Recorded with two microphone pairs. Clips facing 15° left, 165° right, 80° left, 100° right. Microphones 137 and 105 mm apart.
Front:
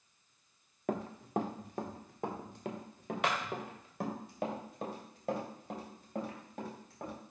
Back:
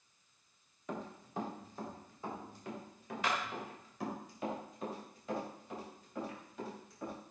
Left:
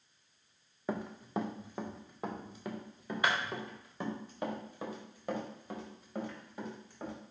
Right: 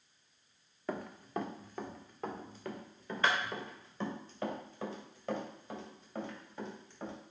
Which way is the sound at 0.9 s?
5° left.